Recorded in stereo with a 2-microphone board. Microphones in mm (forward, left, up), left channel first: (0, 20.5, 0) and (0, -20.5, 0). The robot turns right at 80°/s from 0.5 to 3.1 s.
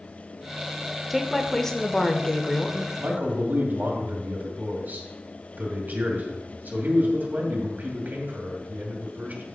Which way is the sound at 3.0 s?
60° right (ahead or behind).